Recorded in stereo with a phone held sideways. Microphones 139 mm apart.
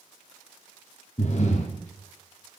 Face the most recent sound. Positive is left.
turn(degrees=55)  # may be behind; listen again after turning